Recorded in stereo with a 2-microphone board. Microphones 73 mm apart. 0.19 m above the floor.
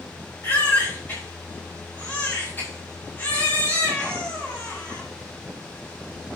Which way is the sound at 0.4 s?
30° left (ahead or behind).